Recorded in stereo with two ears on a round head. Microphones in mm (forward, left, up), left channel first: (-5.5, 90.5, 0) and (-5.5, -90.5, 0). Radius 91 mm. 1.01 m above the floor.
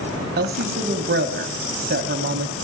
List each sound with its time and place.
0.4 s a woman speaking: 45° right (ahead or behind), 0.9 m